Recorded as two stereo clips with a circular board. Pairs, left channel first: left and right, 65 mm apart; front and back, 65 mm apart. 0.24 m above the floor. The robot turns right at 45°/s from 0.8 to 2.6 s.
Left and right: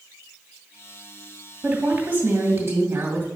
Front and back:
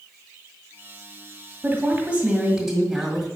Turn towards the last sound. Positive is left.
turn(degrees=-100)